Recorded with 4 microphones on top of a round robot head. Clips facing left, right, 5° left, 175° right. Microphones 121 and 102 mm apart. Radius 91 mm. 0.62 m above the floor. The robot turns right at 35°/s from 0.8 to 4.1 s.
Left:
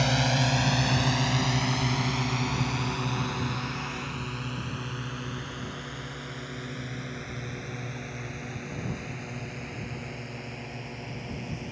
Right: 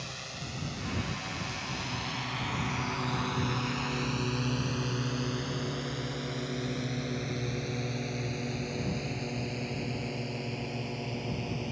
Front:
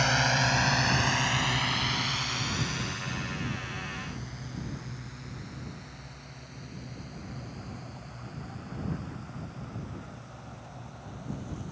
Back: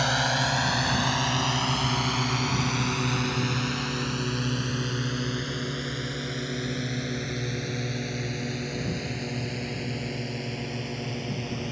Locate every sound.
0.0 s a drone: 105° left; by 11.7 s 160° right